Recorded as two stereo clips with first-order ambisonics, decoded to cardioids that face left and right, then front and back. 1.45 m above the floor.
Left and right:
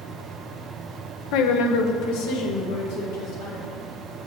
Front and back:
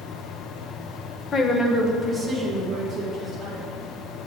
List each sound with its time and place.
1.3 s a woman speaking: 65° left, 0.5 m; by 3.8 s 110° left, 1.9 m